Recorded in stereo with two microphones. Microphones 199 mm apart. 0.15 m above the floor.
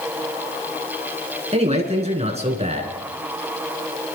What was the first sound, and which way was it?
A man speaking, 35° right (ahead or behind).